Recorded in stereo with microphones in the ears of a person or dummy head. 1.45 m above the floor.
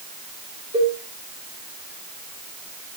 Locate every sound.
0.7 s a cowbell: 35° right (ahead or behind), 3 m